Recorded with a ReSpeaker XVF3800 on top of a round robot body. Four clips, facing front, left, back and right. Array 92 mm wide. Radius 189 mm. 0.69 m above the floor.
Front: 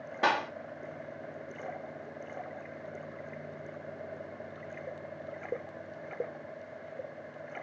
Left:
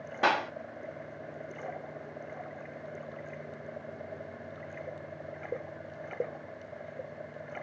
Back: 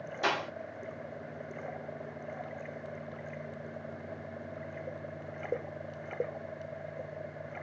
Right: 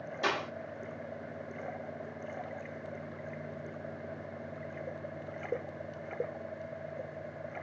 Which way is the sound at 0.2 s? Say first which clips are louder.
Left 6 dB, front 4 dB; 50° left.